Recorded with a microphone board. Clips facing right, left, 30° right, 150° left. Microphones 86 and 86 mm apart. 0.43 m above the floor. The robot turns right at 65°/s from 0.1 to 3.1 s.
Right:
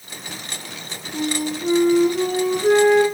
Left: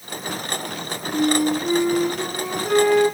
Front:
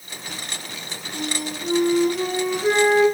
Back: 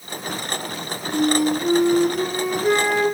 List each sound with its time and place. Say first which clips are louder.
1.1 s a flute: left 5 dB, back 11 dB; 150° left, 7.5 m; by 3.0 s 85° right, 7.5 m